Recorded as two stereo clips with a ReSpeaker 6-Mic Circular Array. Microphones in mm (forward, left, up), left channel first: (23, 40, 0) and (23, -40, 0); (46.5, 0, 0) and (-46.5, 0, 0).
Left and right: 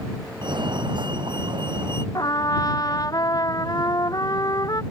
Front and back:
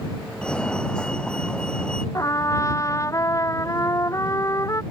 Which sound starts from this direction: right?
A fire alarm, at 0.4 s.